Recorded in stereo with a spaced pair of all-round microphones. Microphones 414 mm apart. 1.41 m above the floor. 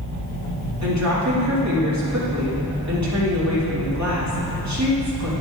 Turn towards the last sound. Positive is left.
turn(degrees=-45)  # may be behind; listen again after turning